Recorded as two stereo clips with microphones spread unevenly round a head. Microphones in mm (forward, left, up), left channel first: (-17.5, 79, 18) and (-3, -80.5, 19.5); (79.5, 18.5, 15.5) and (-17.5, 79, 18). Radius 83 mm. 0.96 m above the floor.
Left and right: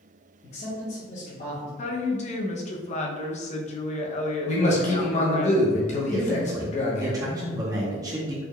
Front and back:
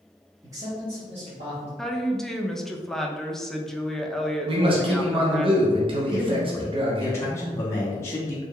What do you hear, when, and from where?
0.4 s a man speaking: 85° left, 0.9 m; by 1.7 s 140° left, 1.9 m
1.8 s a woman speaking: 55° left, 0.5 m
4.5 s a man speaking: 125° left, 0.7 m
6.1 s a man speaking: 50° right, 0.7 m